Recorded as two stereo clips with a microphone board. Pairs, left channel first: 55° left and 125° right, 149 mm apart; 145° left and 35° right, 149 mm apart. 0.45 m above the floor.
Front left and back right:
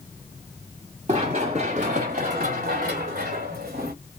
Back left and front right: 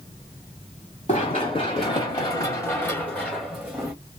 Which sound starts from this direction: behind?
Running footsteps, at 1.1 s.